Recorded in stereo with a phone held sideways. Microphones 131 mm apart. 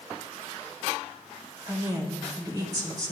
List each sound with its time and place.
1.7 s a woman speaking: 30° right (ahead or behind), 3 m